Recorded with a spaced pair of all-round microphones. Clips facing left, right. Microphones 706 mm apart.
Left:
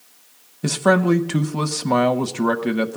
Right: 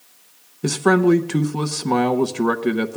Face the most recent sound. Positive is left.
turn(degrees=15)  # may be behind; listen again after turning